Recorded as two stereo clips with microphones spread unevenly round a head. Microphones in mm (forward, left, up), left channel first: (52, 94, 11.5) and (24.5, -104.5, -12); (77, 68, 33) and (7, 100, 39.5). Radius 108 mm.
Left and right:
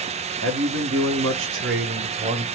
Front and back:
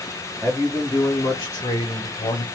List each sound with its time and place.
0.4 s a man speaking: 125° right, 1.1 m; by 2.5 s 50° right, 1.2 m